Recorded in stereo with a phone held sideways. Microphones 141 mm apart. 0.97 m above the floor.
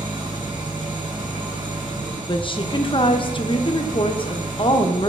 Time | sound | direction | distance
0.0 | an engine running | 35° right (ahead or behind) | 3 m
2.3 | a woman speaking | 35° left (ahead or behind) | 0.6 m